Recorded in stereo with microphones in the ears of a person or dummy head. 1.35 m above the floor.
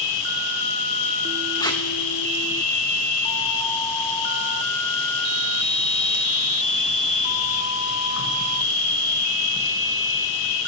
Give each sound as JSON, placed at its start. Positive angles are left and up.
{"t": 0.0, "sound": "an insect", "side_deg": 75, "distance_m": 1.7}
{"t": 1.6, "sound": "tape being pulled", "side_deg": 15, "distance_m": 1.4}